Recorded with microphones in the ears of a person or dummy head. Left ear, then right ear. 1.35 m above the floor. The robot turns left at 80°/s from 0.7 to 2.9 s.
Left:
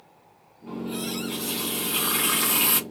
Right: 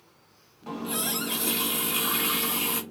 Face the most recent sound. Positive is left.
turn(degrees=90)